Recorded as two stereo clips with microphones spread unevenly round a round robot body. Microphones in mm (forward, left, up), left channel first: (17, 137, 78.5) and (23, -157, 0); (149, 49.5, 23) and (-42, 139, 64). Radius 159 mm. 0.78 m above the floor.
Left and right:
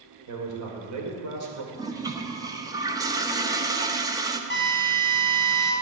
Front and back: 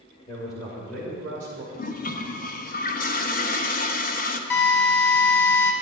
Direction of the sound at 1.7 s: 25° right.